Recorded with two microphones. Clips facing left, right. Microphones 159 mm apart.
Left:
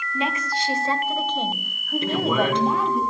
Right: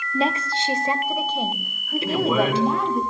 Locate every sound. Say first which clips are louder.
0.1 s a woman speaking: right 4 dB; 40° right (ahead or behind), 0.7 m; by 3.0 s centre (ahead or behind), 2 m
2.0 s a man speaking: right 1 dB; 5° right (ahead or behind), 4 m